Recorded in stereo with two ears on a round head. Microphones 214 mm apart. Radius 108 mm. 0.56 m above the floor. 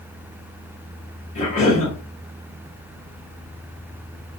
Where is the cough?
30° left (ahead or behind), 1.4 m.